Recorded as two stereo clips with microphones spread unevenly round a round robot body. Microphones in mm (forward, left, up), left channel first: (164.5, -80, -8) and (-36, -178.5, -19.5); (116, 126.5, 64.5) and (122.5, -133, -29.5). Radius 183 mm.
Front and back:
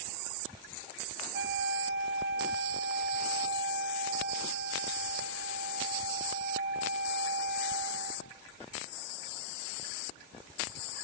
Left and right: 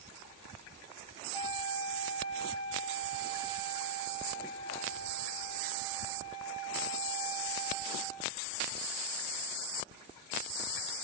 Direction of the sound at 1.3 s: 155° left.